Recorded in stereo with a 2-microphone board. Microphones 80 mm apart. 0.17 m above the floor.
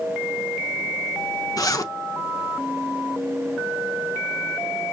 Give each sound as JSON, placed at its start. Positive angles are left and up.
{"t": 1.6, "sound": "a zipper", "side_deg": 50, "distance_m": 0.6}